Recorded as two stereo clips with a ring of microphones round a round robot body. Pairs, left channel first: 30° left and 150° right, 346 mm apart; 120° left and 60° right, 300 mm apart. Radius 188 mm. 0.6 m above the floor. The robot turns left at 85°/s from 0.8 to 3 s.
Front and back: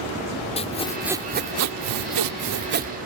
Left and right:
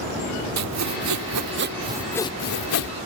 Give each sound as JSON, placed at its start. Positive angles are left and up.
{"t": 0.6, "sound": "sawing", "azimuth_deg": -40}